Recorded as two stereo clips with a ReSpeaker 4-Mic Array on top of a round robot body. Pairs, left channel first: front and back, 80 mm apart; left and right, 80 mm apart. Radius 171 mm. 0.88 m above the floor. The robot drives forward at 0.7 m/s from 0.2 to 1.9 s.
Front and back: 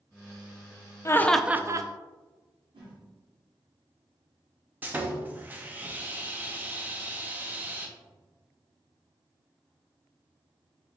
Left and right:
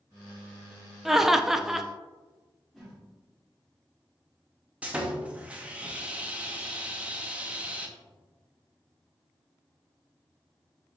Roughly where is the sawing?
Behind right.